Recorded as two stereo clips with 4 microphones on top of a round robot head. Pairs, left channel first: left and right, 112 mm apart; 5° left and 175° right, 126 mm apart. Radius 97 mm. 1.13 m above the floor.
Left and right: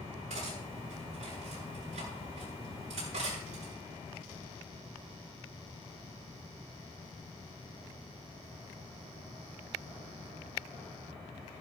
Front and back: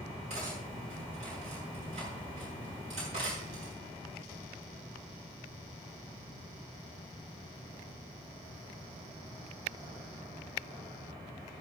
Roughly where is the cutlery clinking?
Behind right.